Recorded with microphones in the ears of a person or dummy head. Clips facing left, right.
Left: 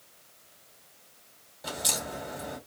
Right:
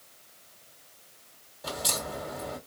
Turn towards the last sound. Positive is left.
turn(degrees=0)  # may be behind; listen again after turning